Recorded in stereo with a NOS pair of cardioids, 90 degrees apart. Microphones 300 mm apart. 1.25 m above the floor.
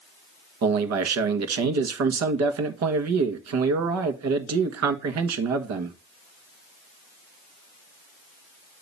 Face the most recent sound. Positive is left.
turn(degrees=-70)